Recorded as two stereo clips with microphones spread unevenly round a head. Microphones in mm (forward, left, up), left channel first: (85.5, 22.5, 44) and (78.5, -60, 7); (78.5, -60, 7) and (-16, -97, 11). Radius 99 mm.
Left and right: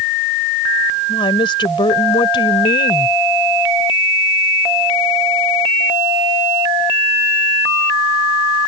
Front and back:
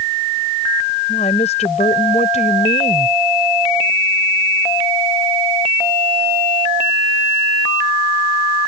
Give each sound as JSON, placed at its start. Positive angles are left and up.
{"t": 1.1, "sound": "a woman speaking", "azimuth_deg": 75}